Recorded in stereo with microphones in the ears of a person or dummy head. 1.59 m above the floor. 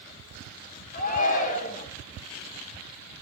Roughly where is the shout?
Left.